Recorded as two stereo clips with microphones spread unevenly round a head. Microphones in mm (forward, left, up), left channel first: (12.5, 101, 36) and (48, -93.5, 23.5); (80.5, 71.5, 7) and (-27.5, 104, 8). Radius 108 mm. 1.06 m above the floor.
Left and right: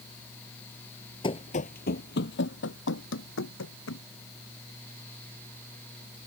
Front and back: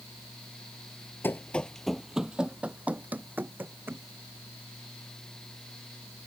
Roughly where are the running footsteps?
Ahead left.